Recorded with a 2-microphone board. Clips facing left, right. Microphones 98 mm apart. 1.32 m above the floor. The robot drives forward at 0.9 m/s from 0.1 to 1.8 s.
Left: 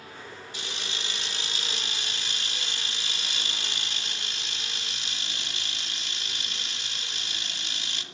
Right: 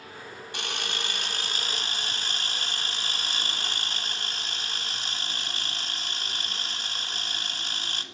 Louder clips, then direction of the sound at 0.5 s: Right 6 dB; 60° right (ahead or behind).